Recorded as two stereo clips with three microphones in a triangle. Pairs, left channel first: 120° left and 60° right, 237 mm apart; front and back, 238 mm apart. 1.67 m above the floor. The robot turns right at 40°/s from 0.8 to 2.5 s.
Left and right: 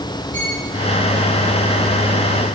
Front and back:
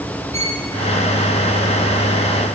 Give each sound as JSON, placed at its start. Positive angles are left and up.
{"t": 0.3, "sound": "a violin", "azimuth_deg": -120, "distance_m": 6.0}